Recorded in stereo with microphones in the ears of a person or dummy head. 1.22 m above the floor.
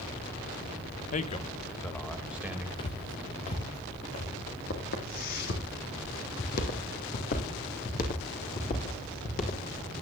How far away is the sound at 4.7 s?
About 3 m.